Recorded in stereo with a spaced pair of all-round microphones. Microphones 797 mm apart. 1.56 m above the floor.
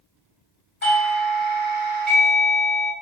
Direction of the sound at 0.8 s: 50° left (ahead or behind).